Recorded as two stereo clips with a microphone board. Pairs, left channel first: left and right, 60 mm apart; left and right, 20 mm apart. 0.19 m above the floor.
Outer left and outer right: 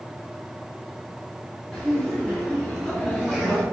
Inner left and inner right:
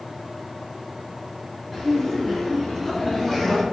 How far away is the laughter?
About 1.8 m.